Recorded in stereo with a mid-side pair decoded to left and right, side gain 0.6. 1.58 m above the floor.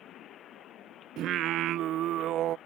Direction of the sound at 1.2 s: 60° right.